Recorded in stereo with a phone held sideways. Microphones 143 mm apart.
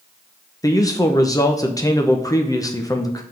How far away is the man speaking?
About 0.8 m.